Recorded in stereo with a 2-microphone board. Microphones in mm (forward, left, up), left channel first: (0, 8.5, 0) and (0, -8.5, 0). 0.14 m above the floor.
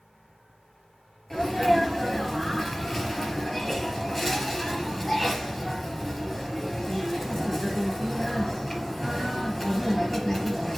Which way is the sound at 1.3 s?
15° left (ahead or behind).